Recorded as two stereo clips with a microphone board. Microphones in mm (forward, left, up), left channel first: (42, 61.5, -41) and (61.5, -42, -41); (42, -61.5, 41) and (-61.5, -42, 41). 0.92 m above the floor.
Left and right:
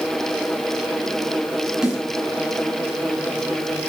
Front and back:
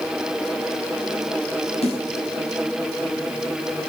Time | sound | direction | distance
1.8 | a snare drum | 5° left | 7 m